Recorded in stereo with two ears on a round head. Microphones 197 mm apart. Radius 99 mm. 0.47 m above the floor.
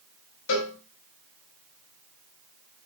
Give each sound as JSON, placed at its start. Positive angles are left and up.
{"t": 0.5, "sound": "a cowbell", "side_deg": 70, "distance_m": 2.0}